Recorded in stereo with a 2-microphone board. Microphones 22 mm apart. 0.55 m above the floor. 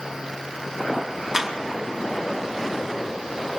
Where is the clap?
20° right (ahead or behind), 5 m.